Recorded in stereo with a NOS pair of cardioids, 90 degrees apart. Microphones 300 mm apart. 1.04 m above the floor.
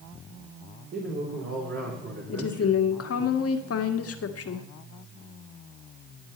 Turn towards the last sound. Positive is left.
turn(degrees=50)